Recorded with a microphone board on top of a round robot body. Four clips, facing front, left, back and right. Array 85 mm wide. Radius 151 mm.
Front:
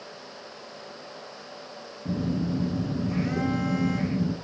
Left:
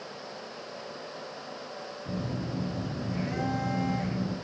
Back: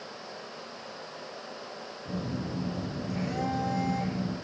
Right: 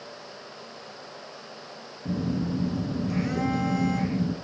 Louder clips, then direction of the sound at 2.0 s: Right 7 dB, front 7 dB; 45° right.